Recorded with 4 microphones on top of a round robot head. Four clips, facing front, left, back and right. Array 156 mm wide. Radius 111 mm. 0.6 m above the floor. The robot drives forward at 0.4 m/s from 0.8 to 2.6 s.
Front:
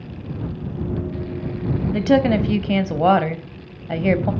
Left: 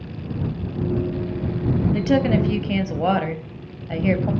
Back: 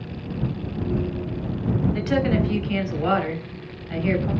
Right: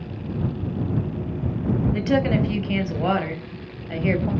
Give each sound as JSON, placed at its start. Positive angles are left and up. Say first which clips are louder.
{"t": 1.9, "sound": "a woman speaking", "louder": "left 3 dB, front 9 dB", "azimuth_deg": 10, "distance_m": 3.5}